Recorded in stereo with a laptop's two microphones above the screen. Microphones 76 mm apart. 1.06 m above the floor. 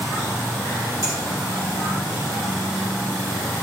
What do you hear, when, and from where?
1.0 s a finger snap: 45° left (ahead or behind), 1.9 m